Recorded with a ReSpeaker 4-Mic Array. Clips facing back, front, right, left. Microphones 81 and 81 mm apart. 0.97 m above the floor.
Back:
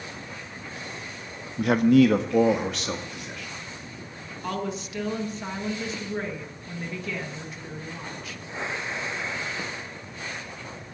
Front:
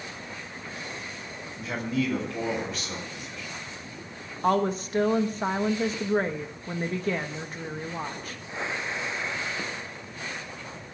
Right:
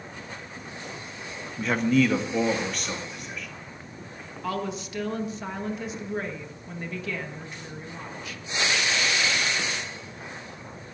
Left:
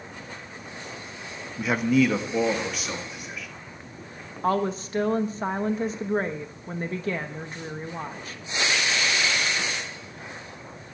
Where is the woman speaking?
45° left, 1.0 m.